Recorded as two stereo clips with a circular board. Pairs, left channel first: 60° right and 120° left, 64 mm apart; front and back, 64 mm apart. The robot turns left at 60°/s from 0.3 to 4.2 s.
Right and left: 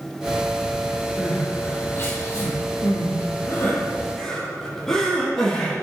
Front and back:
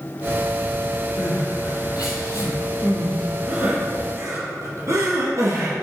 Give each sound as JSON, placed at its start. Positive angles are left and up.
{"t": 1.2, "sound": "crying", "azimuth_deg": 40, "distance_m": 5.0}